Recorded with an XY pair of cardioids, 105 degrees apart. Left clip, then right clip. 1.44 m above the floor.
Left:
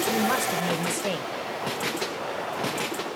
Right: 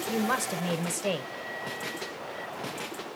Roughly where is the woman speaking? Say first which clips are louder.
Left 1 dB; ahead.